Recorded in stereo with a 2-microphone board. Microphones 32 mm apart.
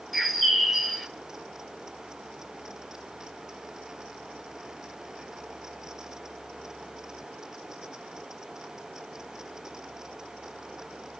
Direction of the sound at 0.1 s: 5° left (ahead or behind).